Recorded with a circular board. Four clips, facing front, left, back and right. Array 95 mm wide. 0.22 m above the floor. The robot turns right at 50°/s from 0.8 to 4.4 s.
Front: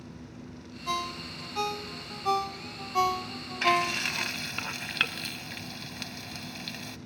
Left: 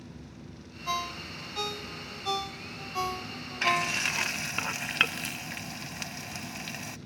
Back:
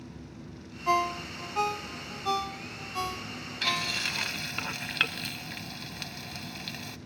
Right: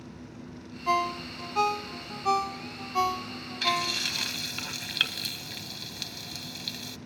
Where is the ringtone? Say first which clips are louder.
Right 7 dB, back 7 dB; 140° right, 0.6 m; by 4.3 s 30° left, 0.6 m.